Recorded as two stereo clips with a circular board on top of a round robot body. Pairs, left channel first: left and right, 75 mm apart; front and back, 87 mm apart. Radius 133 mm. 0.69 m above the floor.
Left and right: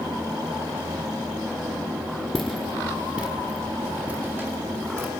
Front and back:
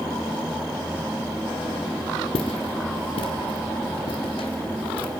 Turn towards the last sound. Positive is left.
turn(degrees=-30)